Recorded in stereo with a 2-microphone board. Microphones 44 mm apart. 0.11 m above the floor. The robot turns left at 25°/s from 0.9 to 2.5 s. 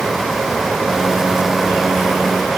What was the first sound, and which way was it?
Only background noise.